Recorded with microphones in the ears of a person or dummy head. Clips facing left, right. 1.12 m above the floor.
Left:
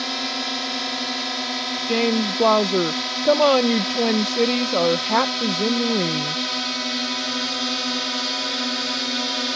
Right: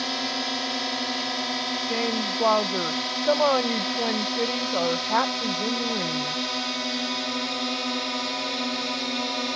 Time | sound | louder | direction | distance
0.0 | a drone | left 1 dB | 5° left (ahead or behind) | ?
1.9 | a woman speaking | left 8 dB | 40° left (ahead or behind) | ?